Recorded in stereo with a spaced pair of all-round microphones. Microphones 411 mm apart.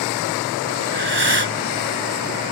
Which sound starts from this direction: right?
Breathing, at 0.8 s.